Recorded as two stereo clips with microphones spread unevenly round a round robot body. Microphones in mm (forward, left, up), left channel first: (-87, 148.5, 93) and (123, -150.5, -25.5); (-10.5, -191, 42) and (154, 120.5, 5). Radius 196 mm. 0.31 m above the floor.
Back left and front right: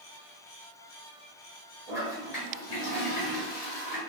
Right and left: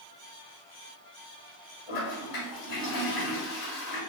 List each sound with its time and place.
1.9 s a toilet flushing: 145° right, 1.8 m